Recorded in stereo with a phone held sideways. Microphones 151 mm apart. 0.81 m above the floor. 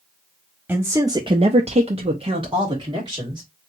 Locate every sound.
0.7 s a man speaking: 10° right (ahead or behind), 0.8 m; by 3.4 s 25° right (ahead or behind), 1.9 m